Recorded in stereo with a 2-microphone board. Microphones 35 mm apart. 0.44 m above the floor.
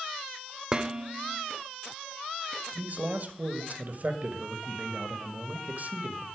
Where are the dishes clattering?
20° right (ahead or behind), 1.0 m.